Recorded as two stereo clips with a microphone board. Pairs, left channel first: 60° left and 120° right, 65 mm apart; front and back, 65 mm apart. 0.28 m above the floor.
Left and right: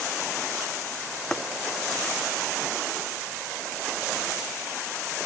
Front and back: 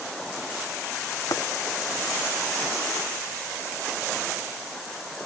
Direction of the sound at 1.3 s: 25° right.